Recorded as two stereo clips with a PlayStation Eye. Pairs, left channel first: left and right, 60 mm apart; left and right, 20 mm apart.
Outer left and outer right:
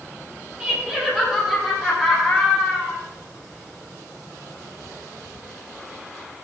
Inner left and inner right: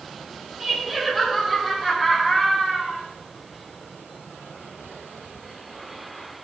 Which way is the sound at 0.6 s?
20° right (ahead or behind).